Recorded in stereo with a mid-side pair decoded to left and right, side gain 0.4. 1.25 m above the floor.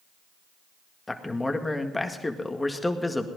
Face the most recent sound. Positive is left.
turn(degrees=20)